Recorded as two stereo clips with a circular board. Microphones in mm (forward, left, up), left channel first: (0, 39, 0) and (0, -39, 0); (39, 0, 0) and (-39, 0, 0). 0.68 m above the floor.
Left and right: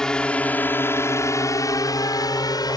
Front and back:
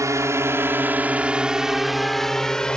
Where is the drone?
165° left; by 2.8 s 75° left.